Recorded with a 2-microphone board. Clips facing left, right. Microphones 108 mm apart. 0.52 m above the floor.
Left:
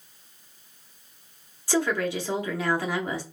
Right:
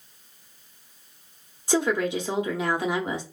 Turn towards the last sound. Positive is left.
turn(degrees=-20)  # may be behind; listen again after turning